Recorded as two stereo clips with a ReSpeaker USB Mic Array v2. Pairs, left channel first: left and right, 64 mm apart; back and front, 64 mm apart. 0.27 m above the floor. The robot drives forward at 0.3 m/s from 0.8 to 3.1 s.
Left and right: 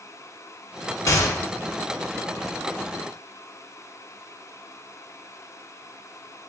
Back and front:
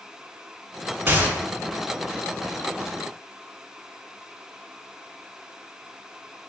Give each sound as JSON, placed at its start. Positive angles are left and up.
{"t": 1.1, "sound": "a gunshot", "azimuth_deg": 55, "distance_m": 0.8}